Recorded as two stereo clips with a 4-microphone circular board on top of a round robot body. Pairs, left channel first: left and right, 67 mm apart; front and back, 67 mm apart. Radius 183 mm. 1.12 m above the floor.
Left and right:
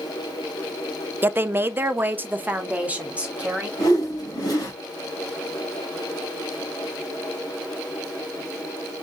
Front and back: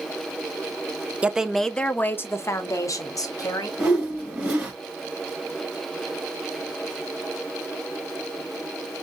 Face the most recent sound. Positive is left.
turn(degrees=110)